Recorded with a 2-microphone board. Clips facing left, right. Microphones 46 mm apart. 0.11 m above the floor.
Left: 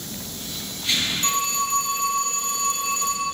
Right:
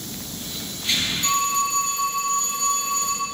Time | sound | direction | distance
1.2 | a phone ringing | 65° left (ahead or behind) | 2.5 m